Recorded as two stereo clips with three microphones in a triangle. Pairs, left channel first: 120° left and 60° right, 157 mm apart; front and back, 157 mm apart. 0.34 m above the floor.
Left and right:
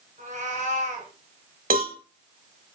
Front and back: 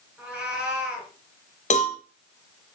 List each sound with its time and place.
0.2 s a cat meowing: 95° right, 3 m
1.7 s a cowbell: 35° right, 1.5 m